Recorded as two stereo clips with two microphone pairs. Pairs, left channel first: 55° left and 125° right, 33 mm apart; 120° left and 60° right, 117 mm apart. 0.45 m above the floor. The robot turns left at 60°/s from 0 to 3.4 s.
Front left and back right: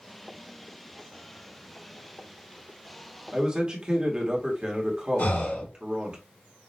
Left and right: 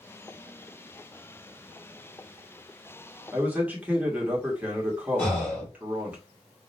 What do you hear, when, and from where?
3.3 s a man speaking: 110° right, 1.0 m; by 6.2 s 115° right, 1.0 m
5.2 s breathing: 40° left, 1.6 m